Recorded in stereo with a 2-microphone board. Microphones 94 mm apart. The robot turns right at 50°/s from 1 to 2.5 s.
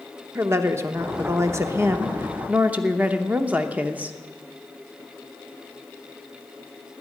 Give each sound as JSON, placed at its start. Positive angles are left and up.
{"t": 0.3, "sound": "a woman speaking", "azimuth_deg": -110, "distance_m": 0.9}